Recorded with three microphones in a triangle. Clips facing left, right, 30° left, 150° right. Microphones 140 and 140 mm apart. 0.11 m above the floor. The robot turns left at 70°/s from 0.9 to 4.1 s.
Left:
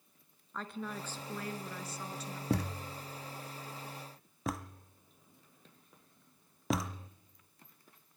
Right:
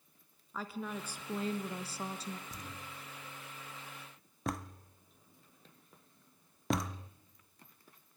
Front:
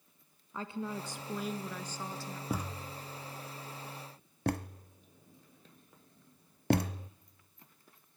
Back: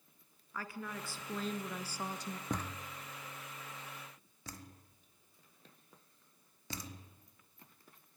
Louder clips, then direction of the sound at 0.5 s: Right 1 dB, front 5 dB; 10° right.